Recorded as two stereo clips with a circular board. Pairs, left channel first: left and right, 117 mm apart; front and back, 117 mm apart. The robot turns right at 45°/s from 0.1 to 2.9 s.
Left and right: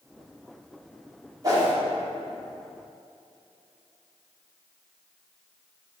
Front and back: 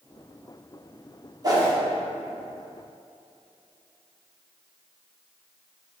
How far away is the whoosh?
About 1.5 m.